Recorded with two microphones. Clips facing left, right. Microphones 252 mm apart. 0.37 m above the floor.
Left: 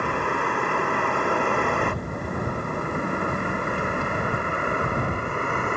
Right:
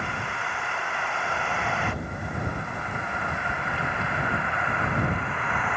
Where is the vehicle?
60° left (ahead or behind); by 5.8 s 45° left (ahead or behind).